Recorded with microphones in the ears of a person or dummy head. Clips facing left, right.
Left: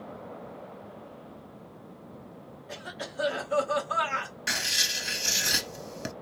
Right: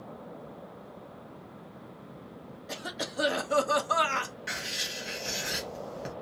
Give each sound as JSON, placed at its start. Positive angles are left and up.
{"t": 2.7, "sound": "a cough", "side_deg": -55, "distance_m": 0.9}
{"t": 4.5, "sound": "writing", "side_deg": 65, "distance_m": 0.8}